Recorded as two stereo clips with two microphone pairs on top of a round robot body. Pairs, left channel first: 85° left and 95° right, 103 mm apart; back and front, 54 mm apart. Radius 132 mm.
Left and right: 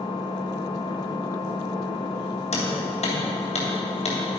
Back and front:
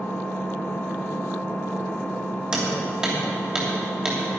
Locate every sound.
0.0 s an engine running: 130° left, 1.4 m
2.5 s hammering: 75° left, 3 m